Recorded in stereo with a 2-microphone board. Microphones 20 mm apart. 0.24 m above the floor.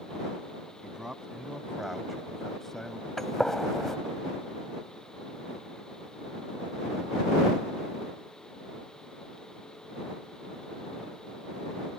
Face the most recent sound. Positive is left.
turn(degrees=20)  # may be behind; listen again after turning